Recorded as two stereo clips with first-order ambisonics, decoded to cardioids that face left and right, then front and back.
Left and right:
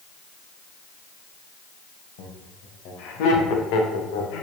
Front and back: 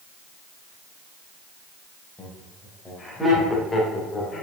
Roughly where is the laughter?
Left.